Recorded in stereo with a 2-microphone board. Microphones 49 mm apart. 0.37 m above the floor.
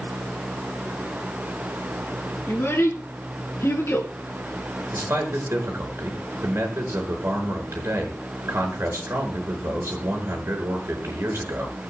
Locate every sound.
2.5 s a child speaking: 55° left (ahead or behind), 4 m
4.9 s a man speaking: 60° right (ahead or behind), 5 m